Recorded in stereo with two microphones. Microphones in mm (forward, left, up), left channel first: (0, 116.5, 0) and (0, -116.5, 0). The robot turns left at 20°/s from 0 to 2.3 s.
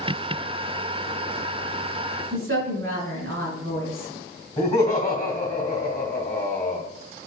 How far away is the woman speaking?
About 1.4 m.